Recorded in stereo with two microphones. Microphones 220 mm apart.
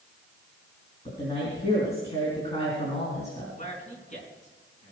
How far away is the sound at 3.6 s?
About 4.5 m.